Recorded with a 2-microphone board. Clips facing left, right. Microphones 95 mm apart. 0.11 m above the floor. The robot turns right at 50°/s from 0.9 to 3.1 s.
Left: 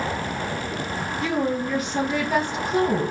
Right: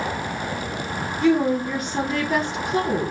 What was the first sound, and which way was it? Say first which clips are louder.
A woman speaking: right 6 dB; 15° right.